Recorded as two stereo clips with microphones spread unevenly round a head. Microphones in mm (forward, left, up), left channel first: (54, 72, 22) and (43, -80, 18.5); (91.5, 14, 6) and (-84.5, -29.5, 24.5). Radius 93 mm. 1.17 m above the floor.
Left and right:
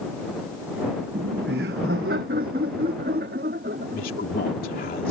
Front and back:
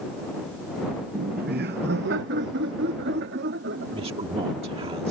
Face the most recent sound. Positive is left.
turn(degrees=130)